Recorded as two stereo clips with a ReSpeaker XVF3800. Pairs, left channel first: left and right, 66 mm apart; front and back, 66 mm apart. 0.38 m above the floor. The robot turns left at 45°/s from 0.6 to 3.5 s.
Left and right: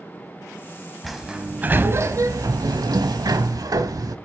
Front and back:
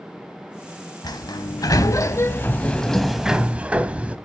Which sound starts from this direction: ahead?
A sliding door, at 1.0 s.